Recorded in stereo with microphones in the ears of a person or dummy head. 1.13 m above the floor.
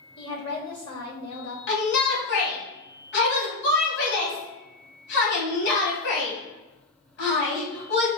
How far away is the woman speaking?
About 2 m.